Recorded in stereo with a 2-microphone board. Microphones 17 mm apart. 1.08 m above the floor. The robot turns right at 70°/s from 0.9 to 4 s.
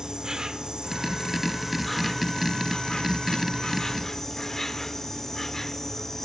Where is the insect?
65° right, 0.9 m; by 6.2 s 155° left, 0.9 m.